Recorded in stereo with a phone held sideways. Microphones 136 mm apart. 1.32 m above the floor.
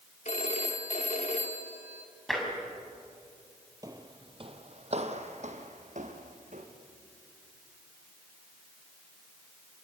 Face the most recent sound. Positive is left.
turn(degrees=-70)  # may be behind; listen again after turning